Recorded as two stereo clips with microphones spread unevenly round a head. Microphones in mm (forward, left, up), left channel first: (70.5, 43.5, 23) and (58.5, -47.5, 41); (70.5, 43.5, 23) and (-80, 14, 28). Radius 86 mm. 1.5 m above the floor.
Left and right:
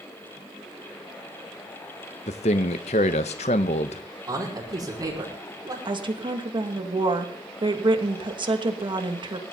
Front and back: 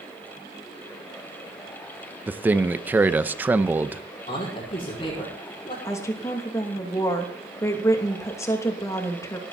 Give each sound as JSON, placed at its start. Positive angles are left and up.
{"t": 2.3, "sound": "a man speaking", "azimuth_deg": 115, "distance_m": 0.9}
{"t": 4.3, "sound": "a man speaking", "azimuth_deg": -50, "distance_m": 6.0}
{"t": 5.8, "sound": "a woman speaking", "azimuth_deg": -65, "distance_m": 2.5}